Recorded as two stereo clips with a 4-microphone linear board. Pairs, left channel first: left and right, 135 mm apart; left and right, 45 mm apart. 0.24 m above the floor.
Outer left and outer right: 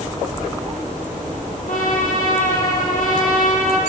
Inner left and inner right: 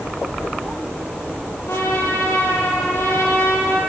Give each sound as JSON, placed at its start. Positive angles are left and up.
{"t": 1.7, "sound": "a trumpet", "side_deg": 70, "distance_m": 7.5}